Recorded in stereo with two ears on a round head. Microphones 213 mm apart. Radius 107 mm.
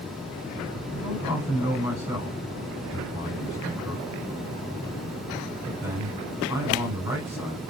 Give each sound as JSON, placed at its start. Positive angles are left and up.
{"t": 0.9, "sound": "a man speaking", "side_deg": -10, "distance_m": 3.0}